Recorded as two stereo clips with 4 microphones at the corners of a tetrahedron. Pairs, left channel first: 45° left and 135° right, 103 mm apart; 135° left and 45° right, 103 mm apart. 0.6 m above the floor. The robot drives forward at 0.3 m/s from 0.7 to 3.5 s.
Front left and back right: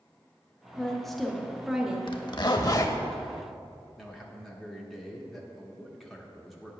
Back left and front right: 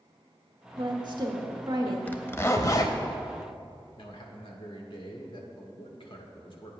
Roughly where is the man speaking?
Behind left.